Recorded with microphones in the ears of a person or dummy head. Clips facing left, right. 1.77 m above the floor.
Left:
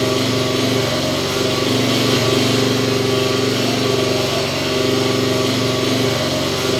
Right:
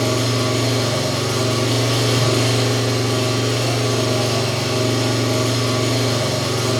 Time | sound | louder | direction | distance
0.0 | an engine running | left 3 dB | 20° left (ahead or behind) | 1.3 m